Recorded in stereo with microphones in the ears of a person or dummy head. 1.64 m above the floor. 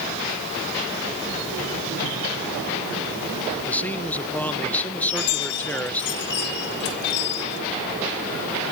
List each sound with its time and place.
3.6 s a man speaking: 10° left (ahead or behind)
5.0 s a chime: 55° left (ahead or behind)